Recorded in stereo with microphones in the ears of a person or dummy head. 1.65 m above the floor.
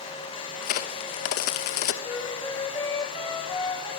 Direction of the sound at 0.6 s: 45° left (ahead or behind).